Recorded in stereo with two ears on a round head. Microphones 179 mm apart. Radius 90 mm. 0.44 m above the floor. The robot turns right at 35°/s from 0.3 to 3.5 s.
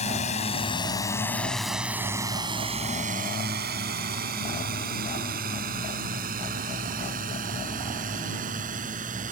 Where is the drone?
35° left (ahead or behind); by 9.3 s 40° right (ahead or behind).